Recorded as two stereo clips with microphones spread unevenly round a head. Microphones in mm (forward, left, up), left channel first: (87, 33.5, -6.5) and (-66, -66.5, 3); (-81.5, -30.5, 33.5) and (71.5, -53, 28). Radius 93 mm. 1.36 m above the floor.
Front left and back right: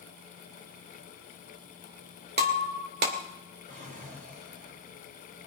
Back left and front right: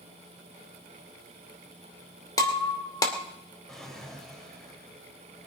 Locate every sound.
2.4 s breaking glass: 125° right, 2.5 m
3.7 s a drawer: 105° right, 3.5 m